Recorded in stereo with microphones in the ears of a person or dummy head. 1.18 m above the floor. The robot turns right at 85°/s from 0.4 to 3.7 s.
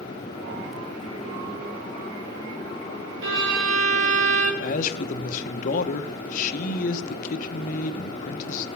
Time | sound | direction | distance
3.2 | a violin | 85° right | 1.5 m
4.6 | a man speaking | 50° left (ahead or behind) | 1.0 m